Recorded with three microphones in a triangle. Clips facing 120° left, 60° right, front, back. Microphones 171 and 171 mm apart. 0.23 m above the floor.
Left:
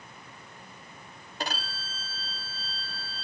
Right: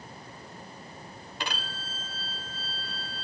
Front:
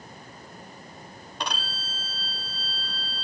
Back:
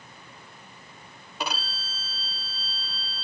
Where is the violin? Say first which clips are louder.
Left 2 dB, back 1 dB; 100° left, 0.8 m.